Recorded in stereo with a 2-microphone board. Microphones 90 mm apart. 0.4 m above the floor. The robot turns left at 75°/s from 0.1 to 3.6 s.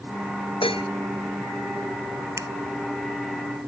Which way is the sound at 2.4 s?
35° right (ahead or behind).